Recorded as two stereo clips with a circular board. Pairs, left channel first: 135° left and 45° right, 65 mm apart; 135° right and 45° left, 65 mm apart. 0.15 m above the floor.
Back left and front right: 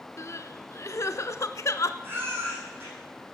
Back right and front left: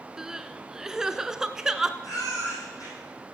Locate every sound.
0.2 s crying: 125° left, 0.5 m
2.0 s a baby crying: 100° right, 5.5 m